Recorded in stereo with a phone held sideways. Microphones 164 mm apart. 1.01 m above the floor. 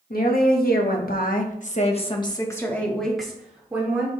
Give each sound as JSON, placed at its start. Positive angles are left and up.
{"t": 0.1, "sound": "a woman speaking", "side_deg": 65, "distance_m": 1.6}